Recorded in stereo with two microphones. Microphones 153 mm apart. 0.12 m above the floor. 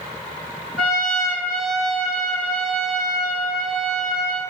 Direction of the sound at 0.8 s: 5° left (ahead or behind).